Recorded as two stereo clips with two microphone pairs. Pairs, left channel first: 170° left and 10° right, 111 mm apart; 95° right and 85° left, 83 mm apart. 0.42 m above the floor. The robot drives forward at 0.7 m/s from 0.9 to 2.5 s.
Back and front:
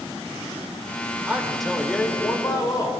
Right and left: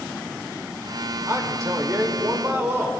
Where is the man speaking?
60° left, 1.0 m; by 2.9 s 135° left, 1.1 m.